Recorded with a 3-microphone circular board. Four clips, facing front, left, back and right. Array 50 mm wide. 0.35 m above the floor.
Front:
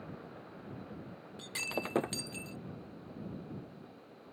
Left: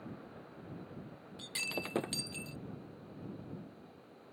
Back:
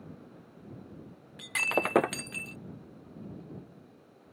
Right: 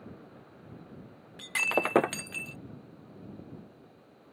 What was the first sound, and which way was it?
Breaking glass, 125° right.